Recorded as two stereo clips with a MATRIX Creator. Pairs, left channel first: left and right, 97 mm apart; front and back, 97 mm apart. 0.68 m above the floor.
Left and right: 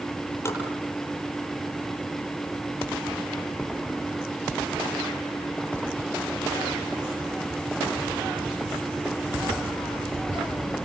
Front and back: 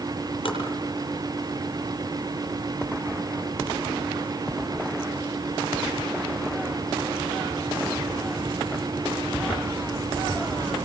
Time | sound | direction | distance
0.5 | tapping | 30° left | 8 m